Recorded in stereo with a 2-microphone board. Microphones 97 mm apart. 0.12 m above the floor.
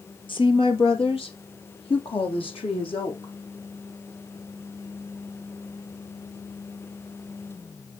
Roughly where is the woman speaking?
Left.